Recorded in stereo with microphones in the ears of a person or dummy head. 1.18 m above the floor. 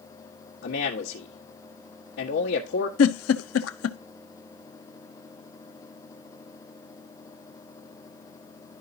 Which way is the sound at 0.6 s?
65° left (ahead or behind).